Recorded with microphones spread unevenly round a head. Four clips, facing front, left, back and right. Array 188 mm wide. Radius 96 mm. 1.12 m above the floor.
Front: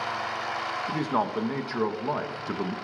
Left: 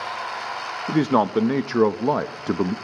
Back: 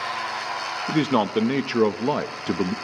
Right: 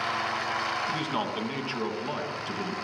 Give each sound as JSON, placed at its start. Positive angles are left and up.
{"t": 0.9, "sound": "a man speaking", "azimuth_deg": 125, "distance_m": 0.9}